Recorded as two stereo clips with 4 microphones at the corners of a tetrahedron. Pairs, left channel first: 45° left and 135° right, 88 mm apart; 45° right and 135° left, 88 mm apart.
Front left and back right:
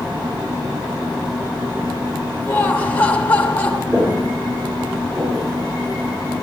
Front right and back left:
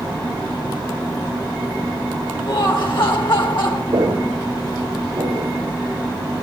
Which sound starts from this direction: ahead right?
Laughter, at 2.5 s.